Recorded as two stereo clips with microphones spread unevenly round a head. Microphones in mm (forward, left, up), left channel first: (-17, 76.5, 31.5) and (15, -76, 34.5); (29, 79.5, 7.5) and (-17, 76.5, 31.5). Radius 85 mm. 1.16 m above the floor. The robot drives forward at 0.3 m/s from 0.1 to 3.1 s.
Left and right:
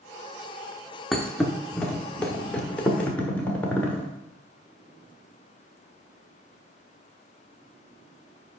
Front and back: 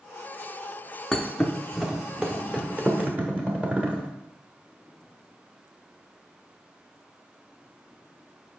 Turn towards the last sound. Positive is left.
turn(degrees=-175)